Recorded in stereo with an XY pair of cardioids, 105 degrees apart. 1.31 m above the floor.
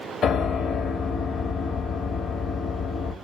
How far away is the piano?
About 1.5 m.